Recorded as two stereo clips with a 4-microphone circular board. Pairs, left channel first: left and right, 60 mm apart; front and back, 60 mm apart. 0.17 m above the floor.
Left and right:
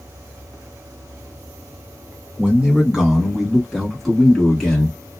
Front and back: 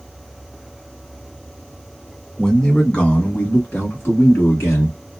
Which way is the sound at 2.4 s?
65° right.